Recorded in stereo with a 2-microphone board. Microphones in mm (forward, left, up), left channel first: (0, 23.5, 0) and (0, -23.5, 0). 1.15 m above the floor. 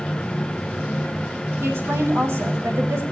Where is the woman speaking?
60° right (ahead or behind), 7.5 m.